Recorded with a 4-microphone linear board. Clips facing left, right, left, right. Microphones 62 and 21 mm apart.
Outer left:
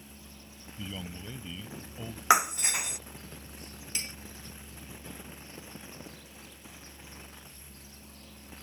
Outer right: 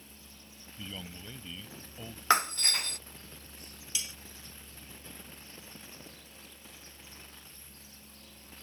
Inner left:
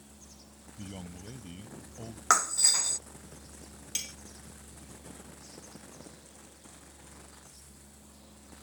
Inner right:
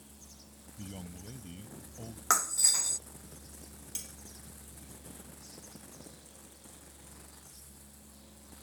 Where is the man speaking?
10° left (ahead or behind).